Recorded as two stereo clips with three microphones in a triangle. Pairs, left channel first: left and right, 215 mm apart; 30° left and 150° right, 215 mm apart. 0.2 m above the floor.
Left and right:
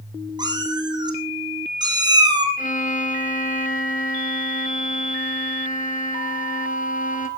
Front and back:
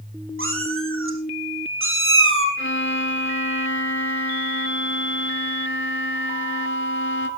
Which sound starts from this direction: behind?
A cat meowing, at 0.4 s.